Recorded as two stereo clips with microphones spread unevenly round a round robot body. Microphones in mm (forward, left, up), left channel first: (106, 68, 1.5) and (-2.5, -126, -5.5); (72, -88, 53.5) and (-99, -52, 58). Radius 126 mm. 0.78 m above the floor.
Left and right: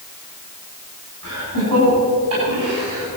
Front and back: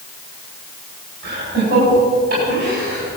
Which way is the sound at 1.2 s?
160° right.